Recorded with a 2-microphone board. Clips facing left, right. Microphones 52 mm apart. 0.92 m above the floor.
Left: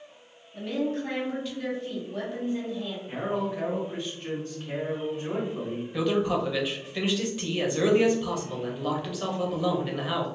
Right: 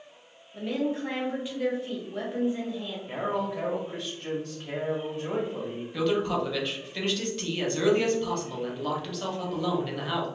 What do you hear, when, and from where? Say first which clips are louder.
0.5 s a woman speaking: even; 10° right (ahead or behind), 1.2 m
3.1 s a man speaking: right 1 dB; 70° right (ahead or behind), 1.3 m
5.9 s a man speaking: left 1 dB; 5° left (ahead or behind), 0.7 m